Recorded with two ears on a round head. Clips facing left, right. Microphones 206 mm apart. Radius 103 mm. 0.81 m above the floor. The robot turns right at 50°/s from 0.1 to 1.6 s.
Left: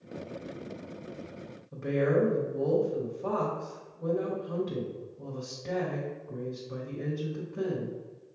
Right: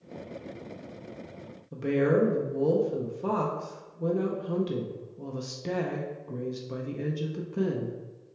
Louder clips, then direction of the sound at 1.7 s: Right 2 dB; 50° right (ahead or behind).